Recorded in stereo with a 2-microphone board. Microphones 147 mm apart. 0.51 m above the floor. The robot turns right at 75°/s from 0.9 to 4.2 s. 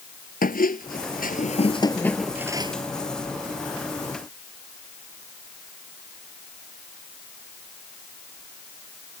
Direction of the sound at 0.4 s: 80° left.